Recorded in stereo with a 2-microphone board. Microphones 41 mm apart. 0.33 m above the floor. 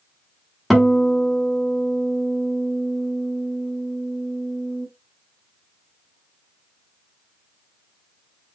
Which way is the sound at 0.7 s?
5° right (ahead or behind).